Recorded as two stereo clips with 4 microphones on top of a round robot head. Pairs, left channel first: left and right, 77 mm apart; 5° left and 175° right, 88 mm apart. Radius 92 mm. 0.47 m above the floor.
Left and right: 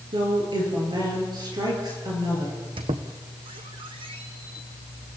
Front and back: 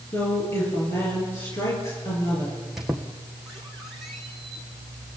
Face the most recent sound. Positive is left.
turn(degrees=-85)